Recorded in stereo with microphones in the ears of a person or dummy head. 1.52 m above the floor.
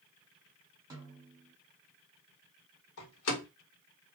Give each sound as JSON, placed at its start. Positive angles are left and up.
{"t": 0.9, "sound": "a snare drum", "side_deg": -15, "distance_m": 1.2}
{"t": 3.0, "sound": "a door slam", "side_deg": 75, "distance_m": 1.4}